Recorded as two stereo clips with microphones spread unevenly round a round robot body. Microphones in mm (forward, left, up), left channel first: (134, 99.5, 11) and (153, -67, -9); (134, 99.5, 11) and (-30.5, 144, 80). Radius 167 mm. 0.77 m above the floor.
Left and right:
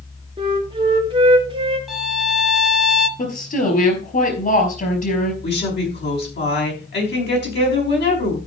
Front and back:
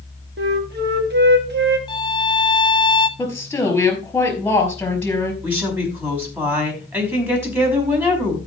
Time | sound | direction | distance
0.4 | a flute | 145° right | 1.1 m
1.9 | a violin | straight ahead | 0.9 m
3.2 | a woman speaking | 65° left | 4.5 m
5.4 | a woman speaking | 85° left | 5 m